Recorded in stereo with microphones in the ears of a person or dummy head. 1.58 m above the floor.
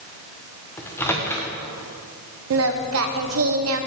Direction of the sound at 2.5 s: 70° right (ahead or behind).